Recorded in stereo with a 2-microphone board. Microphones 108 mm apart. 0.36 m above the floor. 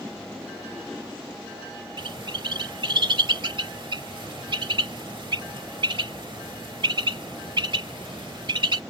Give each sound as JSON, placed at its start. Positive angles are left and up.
{"t": 2.0, "sound": "a bird", "side_deg": -55}